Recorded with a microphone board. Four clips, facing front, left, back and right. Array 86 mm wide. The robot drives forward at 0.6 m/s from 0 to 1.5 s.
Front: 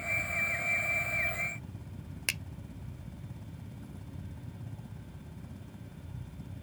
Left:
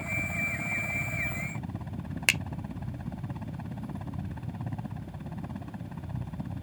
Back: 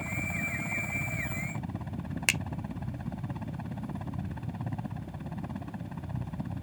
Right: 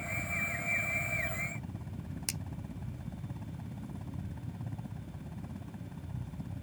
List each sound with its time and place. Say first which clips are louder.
0.0 s a helicopter: left 4 dB, even; 150° left
2.3 s a finger snap: left 13 dB, back 7 dB; 115° left